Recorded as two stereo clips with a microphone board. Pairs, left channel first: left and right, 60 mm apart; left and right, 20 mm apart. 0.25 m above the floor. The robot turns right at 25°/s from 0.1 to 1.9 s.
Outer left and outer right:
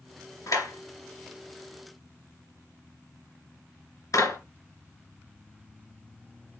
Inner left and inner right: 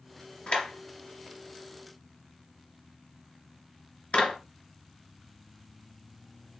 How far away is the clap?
About 2.5 m.